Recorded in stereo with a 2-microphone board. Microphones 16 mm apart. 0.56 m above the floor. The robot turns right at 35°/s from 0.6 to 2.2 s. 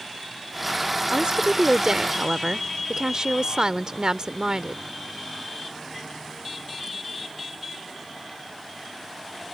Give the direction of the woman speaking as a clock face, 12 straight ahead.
3 o'clock.